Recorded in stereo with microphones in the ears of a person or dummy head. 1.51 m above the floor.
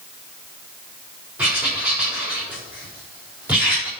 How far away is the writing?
About 5.5 m.